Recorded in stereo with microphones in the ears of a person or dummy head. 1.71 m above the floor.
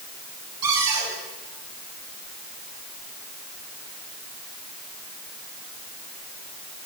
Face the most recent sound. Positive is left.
turn(degrees=-20)  # may be behind; listen again after turning